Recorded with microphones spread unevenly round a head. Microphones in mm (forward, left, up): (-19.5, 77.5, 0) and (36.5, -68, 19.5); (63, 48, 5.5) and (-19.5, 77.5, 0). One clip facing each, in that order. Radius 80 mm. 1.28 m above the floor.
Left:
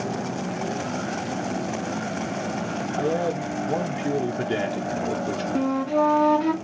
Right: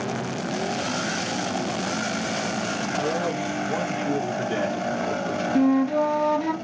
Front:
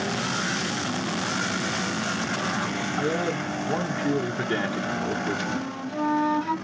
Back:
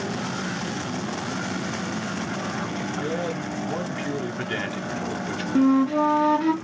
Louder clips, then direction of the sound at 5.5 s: Right 3 dB, back 11 dB; 155° right.